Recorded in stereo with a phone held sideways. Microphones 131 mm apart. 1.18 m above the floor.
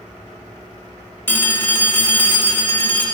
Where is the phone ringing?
15° left (ahead or behind), 1.7 m.